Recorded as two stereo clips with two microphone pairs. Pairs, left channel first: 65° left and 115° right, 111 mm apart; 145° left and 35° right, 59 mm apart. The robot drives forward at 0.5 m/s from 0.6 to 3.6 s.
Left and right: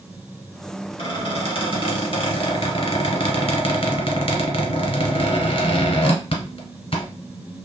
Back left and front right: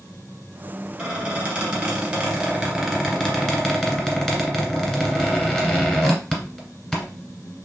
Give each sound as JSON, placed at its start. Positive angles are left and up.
{"t": 1.0, "sound": "a squeak", "azimuth_deg": 25, "distance_m": 1.9}